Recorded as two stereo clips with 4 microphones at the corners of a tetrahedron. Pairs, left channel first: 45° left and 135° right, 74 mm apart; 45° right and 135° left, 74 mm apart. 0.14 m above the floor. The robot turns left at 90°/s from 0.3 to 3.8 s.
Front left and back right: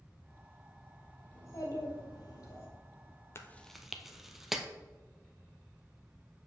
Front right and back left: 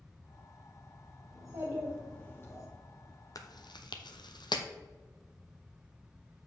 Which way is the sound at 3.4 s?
10° right.